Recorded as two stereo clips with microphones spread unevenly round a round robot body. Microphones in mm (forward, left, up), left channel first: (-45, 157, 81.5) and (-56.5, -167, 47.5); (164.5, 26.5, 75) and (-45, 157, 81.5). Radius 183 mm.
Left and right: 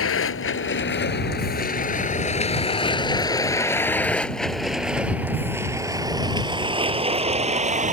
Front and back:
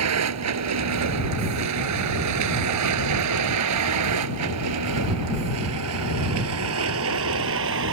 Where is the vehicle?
135° left; by 7.9 s 160° right.